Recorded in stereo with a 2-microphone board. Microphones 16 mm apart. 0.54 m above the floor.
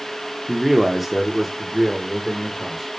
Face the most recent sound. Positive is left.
turn(degrees=0)  # may be behind; listen again after turning